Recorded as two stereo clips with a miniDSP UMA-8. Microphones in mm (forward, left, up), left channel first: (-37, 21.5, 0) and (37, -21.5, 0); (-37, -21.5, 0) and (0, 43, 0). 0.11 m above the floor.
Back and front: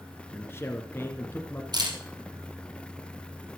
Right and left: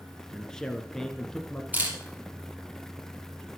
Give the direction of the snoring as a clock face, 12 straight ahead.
I don't hear snoring.